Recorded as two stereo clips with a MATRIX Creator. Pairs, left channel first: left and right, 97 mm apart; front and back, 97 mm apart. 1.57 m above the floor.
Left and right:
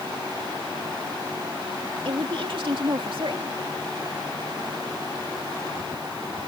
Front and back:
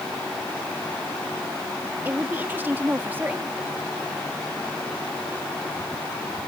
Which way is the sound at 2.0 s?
110° right.